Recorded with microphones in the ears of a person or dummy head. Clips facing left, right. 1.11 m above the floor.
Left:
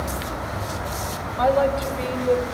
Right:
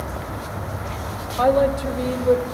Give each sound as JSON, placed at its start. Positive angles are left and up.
{"t": 1.4, "sound": "a woman speaking", "side_deg": -60, "distance_m": 4.5}